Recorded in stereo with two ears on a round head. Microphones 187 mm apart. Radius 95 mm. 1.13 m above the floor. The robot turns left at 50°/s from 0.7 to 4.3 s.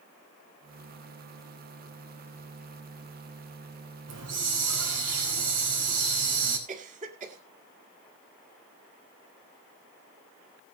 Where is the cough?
40° right (ahead or behind), 2 m.